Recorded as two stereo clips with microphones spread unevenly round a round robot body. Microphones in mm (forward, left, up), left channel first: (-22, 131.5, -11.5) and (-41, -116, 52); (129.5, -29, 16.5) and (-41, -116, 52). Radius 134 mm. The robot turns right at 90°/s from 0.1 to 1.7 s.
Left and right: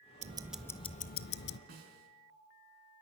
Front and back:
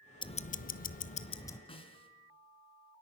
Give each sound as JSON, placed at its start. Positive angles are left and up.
{"t": 0.2, "sound": "ticking", "azimuth_deg": -25, "distance_m": 0.8}
{"t": 1.7, "sound": "a snare drum", "azimuth_deg": -35, "distance_m": 4.0}